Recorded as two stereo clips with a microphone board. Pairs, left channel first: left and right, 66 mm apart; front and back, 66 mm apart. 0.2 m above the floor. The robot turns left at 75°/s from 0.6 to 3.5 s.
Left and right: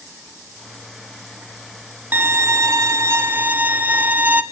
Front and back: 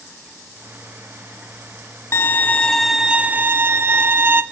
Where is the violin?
35° right, 0.5 m; by 4.4 s 140° right, 0.5 m.